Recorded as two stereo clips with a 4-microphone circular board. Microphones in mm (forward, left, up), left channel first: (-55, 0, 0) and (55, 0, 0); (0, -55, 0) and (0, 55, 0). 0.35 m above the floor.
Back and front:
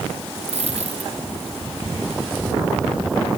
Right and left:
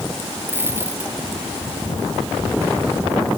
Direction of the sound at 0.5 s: 20° left.